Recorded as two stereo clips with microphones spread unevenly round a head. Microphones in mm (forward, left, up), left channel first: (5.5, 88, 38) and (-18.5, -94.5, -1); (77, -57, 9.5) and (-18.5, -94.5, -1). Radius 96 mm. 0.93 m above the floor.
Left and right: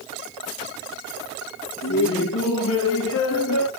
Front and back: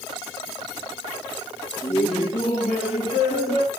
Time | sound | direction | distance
1.8 | laughter | 65° left | 0.8 m